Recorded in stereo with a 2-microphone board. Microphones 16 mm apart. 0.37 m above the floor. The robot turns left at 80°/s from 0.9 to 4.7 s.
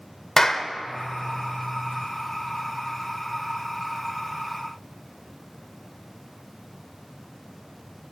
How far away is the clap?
About 0.6 m.